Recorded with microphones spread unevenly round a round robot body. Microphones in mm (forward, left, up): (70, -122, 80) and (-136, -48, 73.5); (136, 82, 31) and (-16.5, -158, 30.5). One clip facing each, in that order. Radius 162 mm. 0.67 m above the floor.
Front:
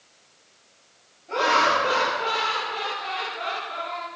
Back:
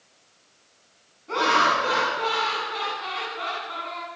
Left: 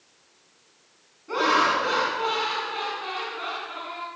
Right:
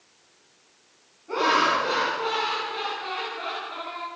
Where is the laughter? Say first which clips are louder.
Front 1 dB, even; 120° left, 7 m.